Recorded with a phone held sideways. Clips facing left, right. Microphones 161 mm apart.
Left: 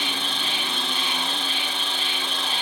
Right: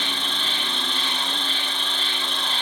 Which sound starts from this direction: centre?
An insect, at 0.0 s.